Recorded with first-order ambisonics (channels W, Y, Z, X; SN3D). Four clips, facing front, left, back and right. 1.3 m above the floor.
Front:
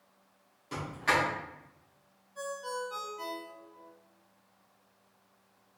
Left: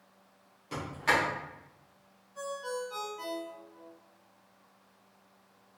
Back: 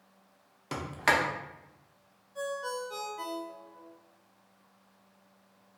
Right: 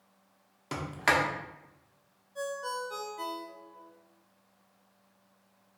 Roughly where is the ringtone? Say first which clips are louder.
Right 2 dB, back 2 dB; behind right.